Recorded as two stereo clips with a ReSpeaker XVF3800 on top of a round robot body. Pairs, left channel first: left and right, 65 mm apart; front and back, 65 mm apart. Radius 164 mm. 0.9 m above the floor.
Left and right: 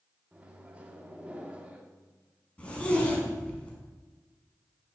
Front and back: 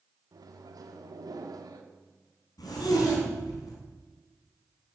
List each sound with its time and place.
0.3 s a microwave: 160° right, 1.8 m
2.6 s a zipper: 20° left, 5.5 m